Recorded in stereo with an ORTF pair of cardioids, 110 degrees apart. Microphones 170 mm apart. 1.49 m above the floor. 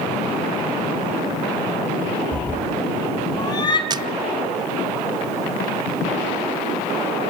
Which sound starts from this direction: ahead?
A cat meowing, at 2.3 s.